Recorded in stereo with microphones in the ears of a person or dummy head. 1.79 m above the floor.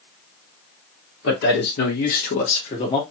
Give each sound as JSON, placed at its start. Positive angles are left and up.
{"t": 1.2, "sound": "a man speaking", "side_deg": 65, "distance_m": 1.9}